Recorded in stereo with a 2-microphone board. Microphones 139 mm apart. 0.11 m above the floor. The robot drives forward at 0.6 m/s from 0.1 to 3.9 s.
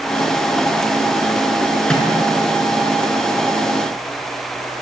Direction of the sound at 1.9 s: 5° left (ahead or behind).